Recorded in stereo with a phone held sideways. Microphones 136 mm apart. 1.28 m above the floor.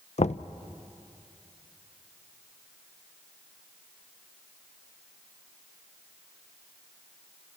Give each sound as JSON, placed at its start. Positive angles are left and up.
{"t": 0.2, "sound": "knocking", "side_deg": 60, "distance_m": 0.5}